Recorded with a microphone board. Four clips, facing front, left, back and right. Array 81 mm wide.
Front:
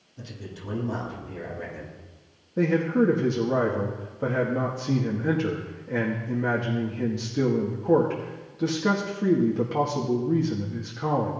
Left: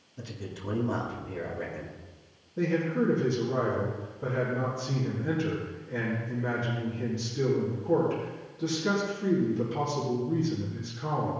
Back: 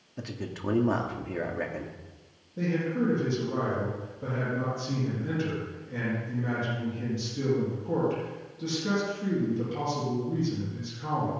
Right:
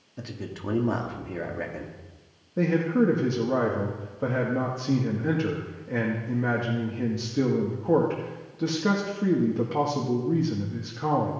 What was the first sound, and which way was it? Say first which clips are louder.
A man speaking: right 4 dB, back 4 dB; 145° right.